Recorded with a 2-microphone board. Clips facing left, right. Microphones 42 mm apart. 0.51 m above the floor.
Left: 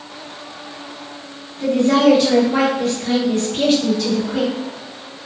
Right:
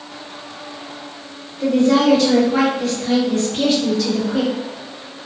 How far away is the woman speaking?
About 1.8 m.